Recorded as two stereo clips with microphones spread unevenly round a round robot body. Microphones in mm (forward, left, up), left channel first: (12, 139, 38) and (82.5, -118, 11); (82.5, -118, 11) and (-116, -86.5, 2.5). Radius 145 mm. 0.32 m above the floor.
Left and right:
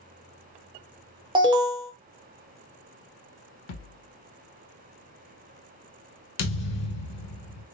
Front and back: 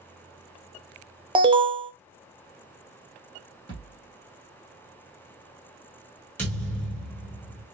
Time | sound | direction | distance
1.4 | an alarm | 135° right | 0.7 m
3.7 | a thud | 95° left | 1.3 m
6.4 | a thud | 75° left | 1.1 m